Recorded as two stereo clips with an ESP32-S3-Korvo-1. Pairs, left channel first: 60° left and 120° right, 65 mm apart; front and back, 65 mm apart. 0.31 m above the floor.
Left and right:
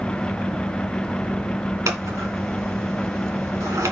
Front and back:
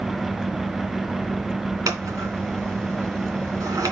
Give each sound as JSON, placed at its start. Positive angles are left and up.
{"t": 1.9, "sound": "scissors", "azimuth_deg": -155, "distance_m": 2.5}